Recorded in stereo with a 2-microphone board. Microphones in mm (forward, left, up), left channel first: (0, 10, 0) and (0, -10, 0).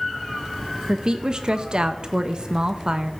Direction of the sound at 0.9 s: 45° right (ahead or behind).